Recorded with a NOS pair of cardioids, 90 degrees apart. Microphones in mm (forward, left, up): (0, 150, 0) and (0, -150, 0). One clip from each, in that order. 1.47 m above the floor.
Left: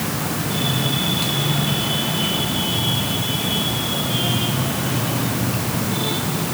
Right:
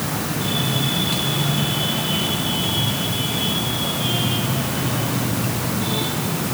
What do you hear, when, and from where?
Only background noise.